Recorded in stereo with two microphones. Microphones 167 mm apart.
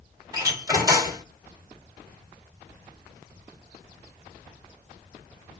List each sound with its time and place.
0.3 s a door slam: 20° right (ahead or behind), 2 m